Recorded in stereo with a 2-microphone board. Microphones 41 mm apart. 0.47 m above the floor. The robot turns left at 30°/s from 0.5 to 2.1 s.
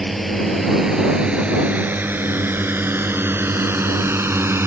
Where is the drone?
5° left (ahead or behind); by 4.7 s 75° right (ahead or behind).